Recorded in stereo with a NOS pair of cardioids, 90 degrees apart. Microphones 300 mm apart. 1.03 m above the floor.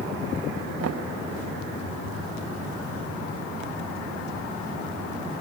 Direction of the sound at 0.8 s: 55° right.